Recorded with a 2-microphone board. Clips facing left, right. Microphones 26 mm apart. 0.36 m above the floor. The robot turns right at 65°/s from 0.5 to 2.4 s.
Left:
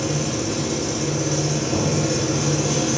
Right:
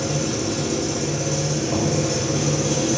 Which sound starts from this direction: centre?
Knocking, at 1.7 s.